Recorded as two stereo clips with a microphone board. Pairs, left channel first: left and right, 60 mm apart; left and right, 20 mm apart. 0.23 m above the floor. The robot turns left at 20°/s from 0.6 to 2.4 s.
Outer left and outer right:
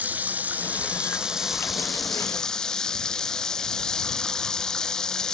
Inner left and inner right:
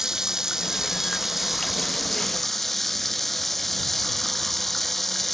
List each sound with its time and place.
0.0 s running water: 155° right; by 5.3 s 170° left